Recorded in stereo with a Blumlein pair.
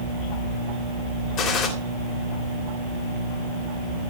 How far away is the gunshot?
About 3 m.